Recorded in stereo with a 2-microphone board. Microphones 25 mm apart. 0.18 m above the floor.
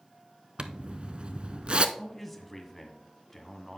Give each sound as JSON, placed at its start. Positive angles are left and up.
{"t": 0.6, "sound": "a zipper", "side_deg": -40, "distance_m": 0.6}
{"t": 1.9, "sound": "a man speaking", "side_deg": 5, "distance_m": 1.4}